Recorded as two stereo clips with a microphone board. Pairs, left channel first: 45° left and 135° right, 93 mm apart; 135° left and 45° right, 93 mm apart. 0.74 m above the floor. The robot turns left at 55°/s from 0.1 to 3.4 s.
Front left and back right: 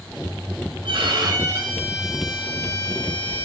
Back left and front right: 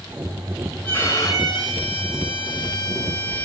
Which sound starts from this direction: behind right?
A violin, at 0.8 s.